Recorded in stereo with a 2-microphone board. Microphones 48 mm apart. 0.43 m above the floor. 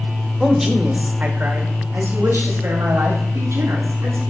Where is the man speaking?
Centre (ahead or behind), 0.9 m; by 4.2 s 75° right (ahead or behind), 2.5 m.